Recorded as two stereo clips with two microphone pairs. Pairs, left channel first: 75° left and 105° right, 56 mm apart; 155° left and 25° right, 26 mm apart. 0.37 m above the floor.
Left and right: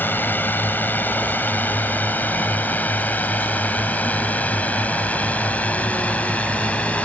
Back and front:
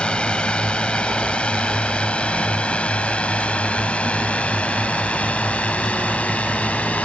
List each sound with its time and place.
0.0 s a drone: 120° left; by 7.0 s 140° left